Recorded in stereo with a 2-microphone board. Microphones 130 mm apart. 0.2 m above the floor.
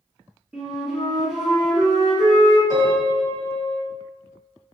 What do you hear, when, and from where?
0.5 s a flute: 5° right (ahead or behind), 1.1 m
2.7 s a piano: 30° right (ahead or behind), 1.1 m